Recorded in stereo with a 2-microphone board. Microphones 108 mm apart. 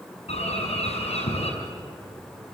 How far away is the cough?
No cough in this recording.